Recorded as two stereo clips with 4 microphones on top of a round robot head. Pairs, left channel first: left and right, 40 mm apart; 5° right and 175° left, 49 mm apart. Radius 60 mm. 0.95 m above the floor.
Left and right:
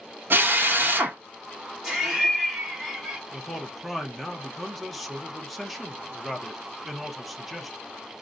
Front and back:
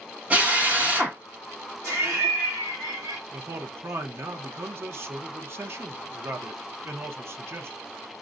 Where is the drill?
120° right, 0.9 m.